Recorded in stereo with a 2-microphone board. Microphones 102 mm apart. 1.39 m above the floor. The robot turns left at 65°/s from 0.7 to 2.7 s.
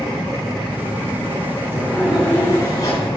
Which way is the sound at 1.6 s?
150° right.